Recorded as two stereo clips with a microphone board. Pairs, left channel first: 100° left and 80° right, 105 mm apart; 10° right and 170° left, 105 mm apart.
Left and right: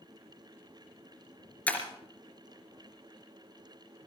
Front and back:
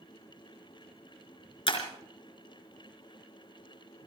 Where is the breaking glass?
25° left, 3.5 m.